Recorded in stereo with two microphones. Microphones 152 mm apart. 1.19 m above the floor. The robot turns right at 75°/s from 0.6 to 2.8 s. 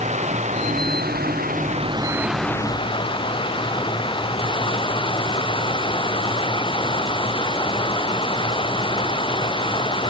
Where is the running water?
130° right; by 10.1 s 35° left.